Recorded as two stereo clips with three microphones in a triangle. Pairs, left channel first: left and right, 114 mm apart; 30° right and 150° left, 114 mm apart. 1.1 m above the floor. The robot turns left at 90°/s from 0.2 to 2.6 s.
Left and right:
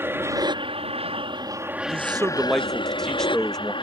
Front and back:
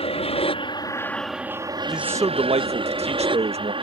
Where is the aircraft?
20° right; by 3.8 s 120° left.